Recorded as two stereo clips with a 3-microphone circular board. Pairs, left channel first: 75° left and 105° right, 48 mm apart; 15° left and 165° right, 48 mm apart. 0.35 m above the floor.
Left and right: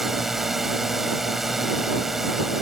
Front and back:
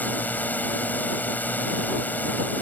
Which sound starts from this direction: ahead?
A drone, at 0.0 s.